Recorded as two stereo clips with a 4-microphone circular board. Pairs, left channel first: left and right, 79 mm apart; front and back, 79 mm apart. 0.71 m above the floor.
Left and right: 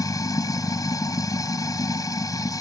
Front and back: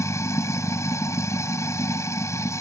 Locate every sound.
0.0 s running water: 50° left